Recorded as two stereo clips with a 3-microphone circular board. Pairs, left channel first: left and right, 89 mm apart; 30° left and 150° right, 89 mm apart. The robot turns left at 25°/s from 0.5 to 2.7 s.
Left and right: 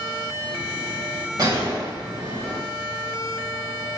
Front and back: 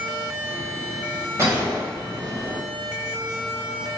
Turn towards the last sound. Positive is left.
turn(degrees=-135)